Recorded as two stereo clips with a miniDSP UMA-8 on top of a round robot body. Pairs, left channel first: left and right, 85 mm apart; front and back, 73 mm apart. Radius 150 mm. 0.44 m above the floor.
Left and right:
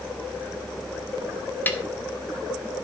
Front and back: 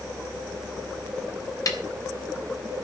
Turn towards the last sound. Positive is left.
turn(degrees=25)